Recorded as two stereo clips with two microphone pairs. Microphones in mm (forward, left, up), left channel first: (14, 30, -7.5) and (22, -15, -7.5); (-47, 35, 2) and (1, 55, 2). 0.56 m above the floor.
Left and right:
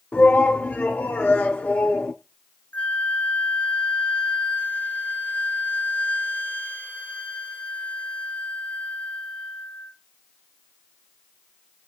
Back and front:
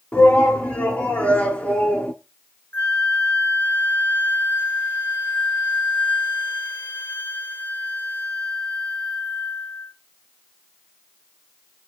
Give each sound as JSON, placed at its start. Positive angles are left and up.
{"t": 0.1, "sound": "a shout", "azimuth_deg": 140, "distance_m": 1.2}
{"t": 2.7, "sound": "a flute", "azimuth_deg": 155, "distance_m": 1.3}